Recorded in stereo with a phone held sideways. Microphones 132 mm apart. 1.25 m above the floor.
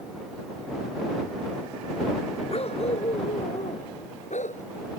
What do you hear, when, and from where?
2.5 s a dog barking: 55° left (ahead or behind); by 4.6 s 70° left (ahead or behind)